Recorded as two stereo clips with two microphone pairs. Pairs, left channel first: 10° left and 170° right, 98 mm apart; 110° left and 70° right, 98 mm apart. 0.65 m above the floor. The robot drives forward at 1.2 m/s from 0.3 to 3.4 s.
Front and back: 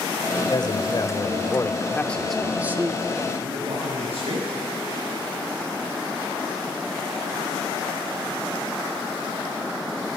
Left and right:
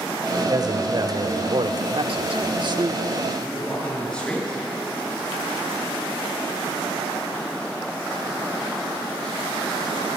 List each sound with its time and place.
0.5 s a man speaking: 25° right, 3 m; by 3.0 s 115° right, 1.3 m
3.4 s a man speaking: 170° right, 8 m